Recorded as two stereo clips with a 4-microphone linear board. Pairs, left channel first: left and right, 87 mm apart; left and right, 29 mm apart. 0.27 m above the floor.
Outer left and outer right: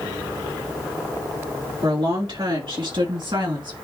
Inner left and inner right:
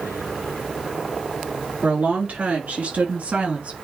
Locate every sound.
1.8 s a woman speaking: 70° right (ahead or behind), 4.5 m; by 3.7 s 60° right (ahead or behind), 3 m